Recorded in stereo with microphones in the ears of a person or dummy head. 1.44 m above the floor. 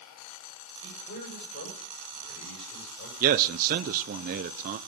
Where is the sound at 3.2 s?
45° right (ahead or behind), 0.6 m.